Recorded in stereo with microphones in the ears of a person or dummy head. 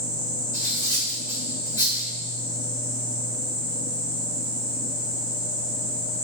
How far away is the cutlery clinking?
About 1.9 m.